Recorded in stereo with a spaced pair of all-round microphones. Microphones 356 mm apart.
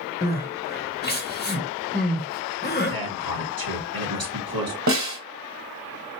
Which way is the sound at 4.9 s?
50° right (ahead or behind).